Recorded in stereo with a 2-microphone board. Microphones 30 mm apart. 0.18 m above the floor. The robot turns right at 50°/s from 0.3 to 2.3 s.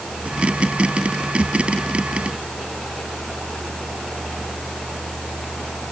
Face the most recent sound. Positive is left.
No sound to turn to.